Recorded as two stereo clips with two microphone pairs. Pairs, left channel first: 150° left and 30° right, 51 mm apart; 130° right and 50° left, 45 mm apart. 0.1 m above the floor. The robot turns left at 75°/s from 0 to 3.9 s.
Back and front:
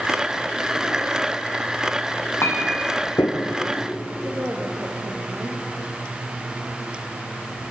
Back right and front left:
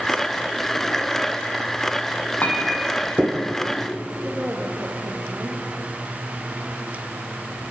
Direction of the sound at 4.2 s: 5° right.